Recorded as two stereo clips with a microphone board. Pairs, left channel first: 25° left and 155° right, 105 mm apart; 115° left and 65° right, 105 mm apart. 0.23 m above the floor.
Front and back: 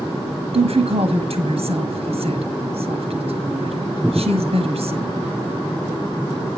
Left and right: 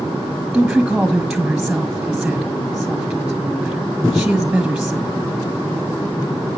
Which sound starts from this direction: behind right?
A woman speaking, at 0.5 s.